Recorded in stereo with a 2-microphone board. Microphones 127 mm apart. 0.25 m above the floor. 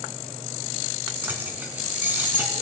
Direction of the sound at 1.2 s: 15° right (ahead or behind).